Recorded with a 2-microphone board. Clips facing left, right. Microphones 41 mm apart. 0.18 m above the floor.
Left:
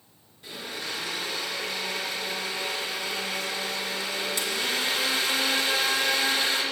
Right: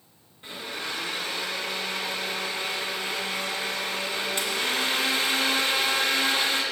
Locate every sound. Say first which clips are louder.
0.4 s a blender: right 1 dB; 35° right (ahead or behind), 1.9 m